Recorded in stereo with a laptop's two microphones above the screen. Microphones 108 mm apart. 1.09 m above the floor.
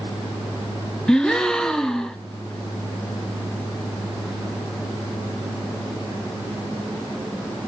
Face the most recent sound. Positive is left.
turn(degrees=5)  # may be behind; listen again after turning